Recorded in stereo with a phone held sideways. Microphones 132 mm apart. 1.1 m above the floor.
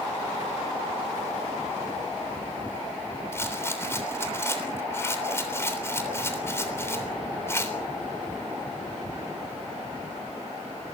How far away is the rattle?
About 3.5 m.